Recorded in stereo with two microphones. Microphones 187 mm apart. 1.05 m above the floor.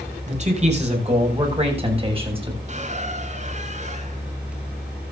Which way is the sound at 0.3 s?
40° right (ahead or behind).